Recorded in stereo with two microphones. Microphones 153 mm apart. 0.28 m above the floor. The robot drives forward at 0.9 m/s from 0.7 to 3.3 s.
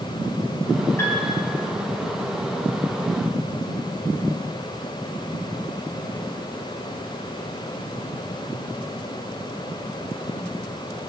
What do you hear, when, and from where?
1.0 s a piano: 20° left (ahead or behind), 2.5 m